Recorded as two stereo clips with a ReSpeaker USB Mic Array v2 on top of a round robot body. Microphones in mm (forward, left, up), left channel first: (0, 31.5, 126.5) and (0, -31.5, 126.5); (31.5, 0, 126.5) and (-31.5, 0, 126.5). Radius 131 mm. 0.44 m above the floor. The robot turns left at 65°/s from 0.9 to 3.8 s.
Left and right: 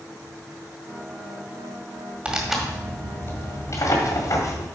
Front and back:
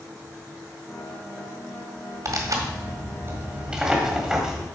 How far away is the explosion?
No explosion in this recording.